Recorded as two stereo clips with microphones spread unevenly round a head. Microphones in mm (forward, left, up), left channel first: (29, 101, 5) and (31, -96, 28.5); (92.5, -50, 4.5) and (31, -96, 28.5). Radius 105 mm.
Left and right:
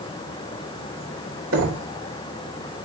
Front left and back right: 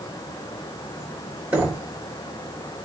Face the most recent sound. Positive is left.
turn(degrees=-70)